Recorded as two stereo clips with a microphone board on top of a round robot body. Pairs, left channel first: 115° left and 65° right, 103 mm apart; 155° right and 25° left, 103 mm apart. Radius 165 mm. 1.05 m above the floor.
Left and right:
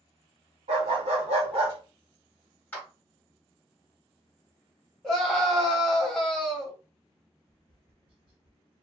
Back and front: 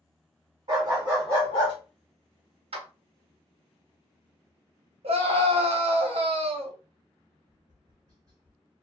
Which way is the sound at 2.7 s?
40° left.